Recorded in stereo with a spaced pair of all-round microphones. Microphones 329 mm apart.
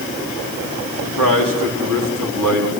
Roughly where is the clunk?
I don't hear a clunk.